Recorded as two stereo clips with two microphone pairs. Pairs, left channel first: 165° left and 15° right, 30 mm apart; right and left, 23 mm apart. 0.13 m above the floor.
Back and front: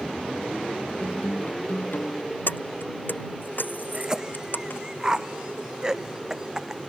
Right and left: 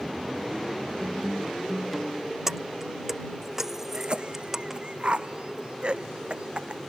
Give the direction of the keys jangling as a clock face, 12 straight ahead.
6 o'clock.